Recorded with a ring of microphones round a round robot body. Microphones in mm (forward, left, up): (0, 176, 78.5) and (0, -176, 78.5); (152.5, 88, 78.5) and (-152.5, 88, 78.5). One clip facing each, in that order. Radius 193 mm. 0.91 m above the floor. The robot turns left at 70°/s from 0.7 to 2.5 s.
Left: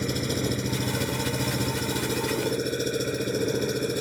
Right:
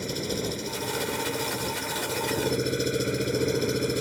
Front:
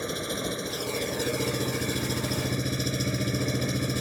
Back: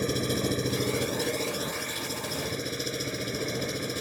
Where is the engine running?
125° left; by 4.0 s straight ahead.